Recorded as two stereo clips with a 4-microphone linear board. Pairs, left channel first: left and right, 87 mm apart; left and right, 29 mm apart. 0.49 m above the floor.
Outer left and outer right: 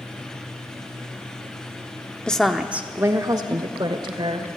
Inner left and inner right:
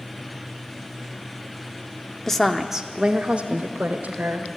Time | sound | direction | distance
2.3 | a woman speaking | 10° left (ahead or behind) | 0.9 m